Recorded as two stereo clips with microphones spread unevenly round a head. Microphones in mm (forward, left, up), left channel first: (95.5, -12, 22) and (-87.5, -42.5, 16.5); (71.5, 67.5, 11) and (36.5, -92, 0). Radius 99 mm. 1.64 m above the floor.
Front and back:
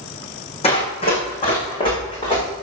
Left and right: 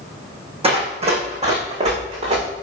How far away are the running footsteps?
About 5 m.